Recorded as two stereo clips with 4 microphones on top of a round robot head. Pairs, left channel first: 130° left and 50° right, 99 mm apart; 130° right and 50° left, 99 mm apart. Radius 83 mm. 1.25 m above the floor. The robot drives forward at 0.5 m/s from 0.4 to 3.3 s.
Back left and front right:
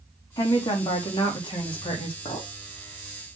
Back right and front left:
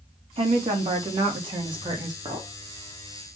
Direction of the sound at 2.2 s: 90° left.